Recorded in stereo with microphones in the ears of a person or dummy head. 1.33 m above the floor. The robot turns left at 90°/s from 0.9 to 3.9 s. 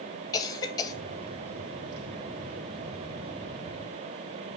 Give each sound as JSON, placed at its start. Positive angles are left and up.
{"t": 0.3, "sound": "a cough", "side_deg": 20, "distance_m": 0.7}